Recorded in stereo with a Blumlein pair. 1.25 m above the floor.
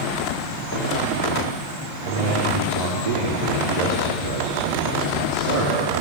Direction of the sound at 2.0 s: 60° right.